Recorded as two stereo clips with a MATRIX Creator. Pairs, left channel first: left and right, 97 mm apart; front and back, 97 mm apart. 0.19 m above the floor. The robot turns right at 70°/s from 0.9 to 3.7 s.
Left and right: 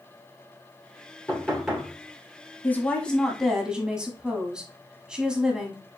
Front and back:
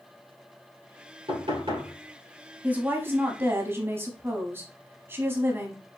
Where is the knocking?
155° left, 2.5 m; by 1.9 s 155° right, 2.5 m.